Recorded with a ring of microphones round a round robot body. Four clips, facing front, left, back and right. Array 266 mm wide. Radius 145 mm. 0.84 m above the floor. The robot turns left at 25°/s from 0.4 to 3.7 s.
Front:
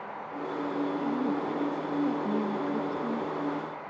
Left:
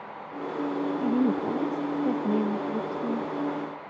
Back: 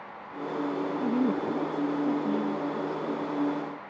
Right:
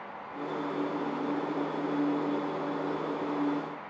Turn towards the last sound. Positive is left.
turn(degrees=55)